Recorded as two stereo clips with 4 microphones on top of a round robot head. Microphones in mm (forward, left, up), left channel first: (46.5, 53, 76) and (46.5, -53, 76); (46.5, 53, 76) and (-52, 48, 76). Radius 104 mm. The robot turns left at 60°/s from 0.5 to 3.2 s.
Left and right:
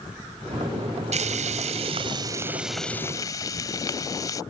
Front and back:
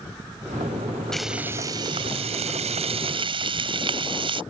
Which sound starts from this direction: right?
Frying, at 1.1 s.